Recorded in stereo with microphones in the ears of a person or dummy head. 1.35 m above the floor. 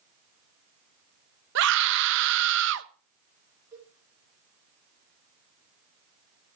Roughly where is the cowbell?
Centre.